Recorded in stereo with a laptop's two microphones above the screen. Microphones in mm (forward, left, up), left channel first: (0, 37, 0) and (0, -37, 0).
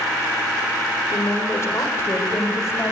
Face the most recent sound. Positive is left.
turn(degrees=35)  # may be behind; listen again after turning